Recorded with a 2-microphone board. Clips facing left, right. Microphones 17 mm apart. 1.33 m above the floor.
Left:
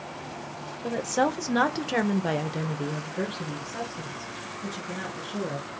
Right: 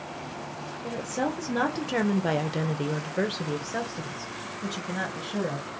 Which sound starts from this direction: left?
A woman speaking, at 0.8 s.